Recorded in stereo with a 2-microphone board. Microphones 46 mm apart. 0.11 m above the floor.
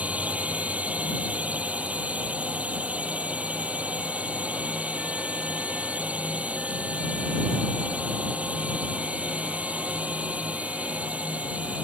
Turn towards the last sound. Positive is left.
turn(degrees=-30)  # may be behind; listen again after turning